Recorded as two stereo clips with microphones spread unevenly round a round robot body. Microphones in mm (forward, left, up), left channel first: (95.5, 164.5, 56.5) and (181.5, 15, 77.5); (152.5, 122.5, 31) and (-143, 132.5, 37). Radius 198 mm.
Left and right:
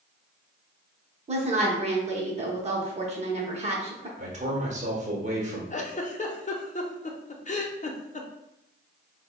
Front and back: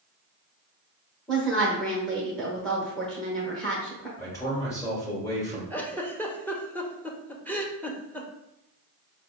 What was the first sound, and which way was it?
A woman speaking, 85° right.